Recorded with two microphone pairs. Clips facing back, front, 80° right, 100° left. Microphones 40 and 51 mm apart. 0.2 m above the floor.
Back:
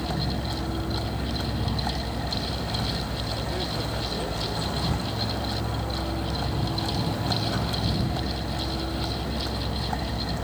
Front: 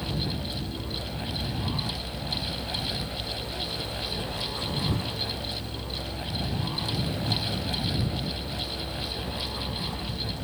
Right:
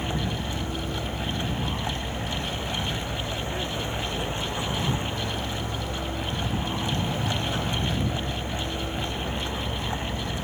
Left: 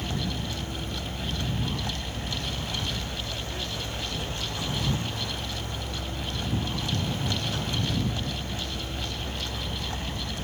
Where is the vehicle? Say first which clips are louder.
Back 3 dB, right 3 dB; 150° right.